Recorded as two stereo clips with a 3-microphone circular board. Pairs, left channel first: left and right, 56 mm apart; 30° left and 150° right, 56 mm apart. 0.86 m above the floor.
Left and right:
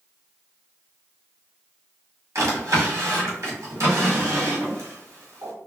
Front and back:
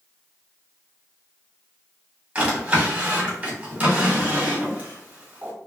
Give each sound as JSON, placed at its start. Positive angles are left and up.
{"t": 2.4, "sound": "a drawer", "azimuth_deg": -90, "distance_m": 1.6}